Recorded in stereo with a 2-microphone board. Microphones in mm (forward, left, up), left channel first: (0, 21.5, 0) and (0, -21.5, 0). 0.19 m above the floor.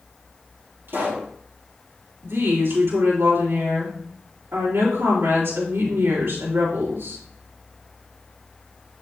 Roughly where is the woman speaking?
Right.